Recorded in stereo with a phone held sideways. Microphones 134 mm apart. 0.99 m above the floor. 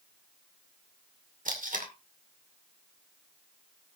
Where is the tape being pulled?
75° right (ahead or behind), 2.5 m.